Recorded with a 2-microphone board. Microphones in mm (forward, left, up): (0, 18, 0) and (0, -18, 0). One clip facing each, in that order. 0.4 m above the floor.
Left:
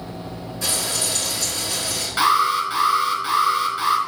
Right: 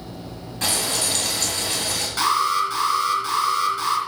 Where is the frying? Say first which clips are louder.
Right 2 dB; 60° right (ahead or behind), 3.5 m.